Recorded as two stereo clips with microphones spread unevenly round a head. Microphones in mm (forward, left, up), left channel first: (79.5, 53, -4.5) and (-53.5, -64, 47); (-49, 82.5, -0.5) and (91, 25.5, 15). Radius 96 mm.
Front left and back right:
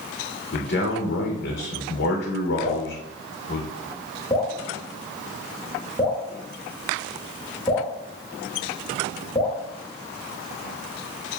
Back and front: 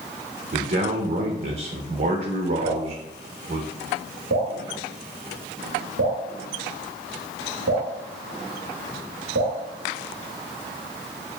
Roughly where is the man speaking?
Ahead.